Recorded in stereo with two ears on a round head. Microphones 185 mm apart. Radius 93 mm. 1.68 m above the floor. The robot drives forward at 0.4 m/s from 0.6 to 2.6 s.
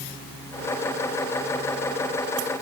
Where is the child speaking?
I don't hear a child speaking.